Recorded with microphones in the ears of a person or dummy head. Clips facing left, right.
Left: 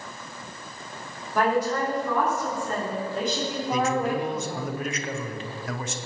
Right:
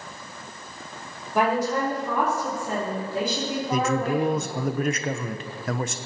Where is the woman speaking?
10° right (ahead or behind), 4 m; by 4.7 s 5° left (ahead or behind), 2.5 m.